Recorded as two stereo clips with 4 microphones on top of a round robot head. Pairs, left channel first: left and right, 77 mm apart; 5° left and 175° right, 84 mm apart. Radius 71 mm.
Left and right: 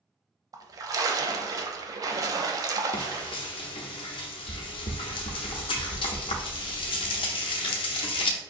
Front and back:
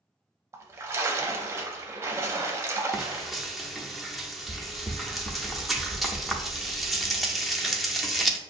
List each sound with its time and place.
0.5 s a splash: 120° right, 0.6 m
2.9 s frying: 90° left, 0.6 m